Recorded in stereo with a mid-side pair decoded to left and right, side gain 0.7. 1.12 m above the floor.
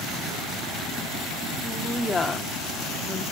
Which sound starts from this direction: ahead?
A woman speaking, at 1.6 s.